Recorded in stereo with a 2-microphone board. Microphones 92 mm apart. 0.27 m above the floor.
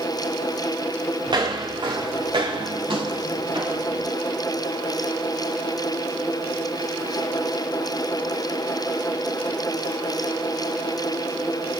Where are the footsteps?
50° right (ahead or behind), 4.5 m; by 4.1 s 65° right (ahead or behind), 5.5 m.